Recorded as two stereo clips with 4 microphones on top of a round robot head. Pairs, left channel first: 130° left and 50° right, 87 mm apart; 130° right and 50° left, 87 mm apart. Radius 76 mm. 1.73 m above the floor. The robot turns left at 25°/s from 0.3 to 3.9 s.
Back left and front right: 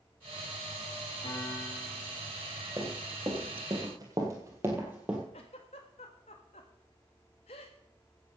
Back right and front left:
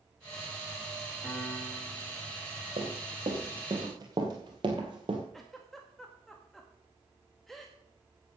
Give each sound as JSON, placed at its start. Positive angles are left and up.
{"t": 1.2, "sound": "a piano", "azimuth_deg": 140, "distance_m": 5.5}
{"t": 2.8, "sound": "running footsteps", "azimuth_deg": 20, "distance_m": 3.0}
{"t": 5.3, "sound": "a giggle", "azimuth_deg": 140, "distance_m": 1.7}